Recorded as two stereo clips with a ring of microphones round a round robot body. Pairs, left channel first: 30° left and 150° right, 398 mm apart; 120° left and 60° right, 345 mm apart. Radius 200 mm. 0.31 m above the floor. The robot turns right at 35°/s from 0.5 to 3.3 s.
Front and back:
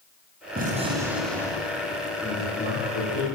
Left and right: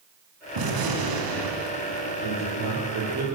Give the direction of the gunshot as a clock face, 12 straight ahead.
3 o'clock.